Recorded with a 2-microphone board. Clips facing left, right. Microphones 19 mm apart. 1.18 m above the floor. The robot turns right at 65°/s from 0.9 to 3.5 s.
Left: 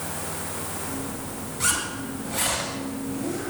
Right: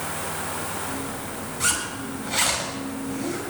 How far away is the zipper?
About 5 m.